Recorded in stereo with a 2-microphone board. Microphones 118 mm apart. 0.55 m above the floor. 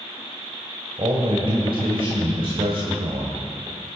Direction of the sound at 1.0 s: 45° right (ahead or behind).